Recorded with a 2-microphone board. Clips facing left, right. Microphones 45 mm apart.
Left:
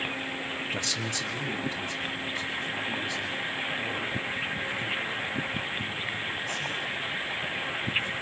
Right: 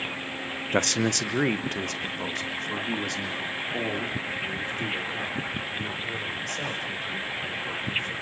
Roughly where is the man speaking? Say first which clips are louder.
Right 7 dB; right.